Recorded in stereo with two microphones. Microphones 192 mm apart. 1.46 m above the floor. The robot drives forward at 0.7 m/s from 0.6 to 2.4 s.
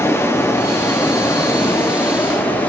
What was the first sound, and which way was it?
Running water, 15° left (ahead or behind).